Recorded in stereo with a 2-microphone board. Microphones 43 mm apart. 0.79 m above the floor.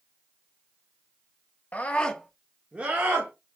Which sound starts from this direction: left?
A scream, at 1.7 s.